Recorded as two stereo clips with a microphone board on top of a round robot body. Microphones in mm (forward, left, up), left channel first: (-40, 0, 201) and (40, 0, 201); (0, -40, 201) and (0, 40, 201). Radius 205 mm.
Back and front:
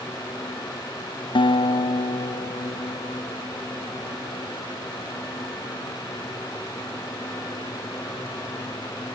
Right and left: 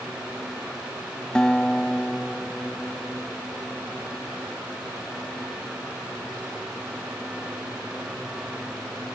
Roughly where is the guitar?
Behind.